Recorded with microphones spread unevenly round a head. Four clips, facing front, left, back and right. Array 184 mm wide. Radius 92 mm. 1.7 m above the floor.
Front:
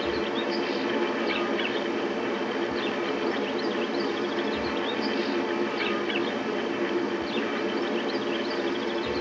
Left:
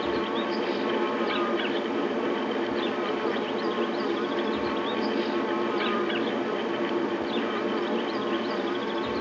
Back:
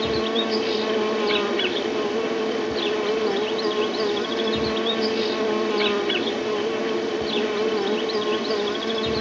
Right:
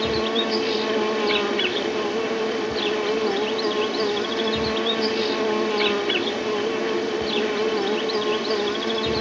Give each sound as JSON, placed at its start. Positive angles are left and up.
{"t": 0.0, "sound": "an insect", "azimuth_deg": -140}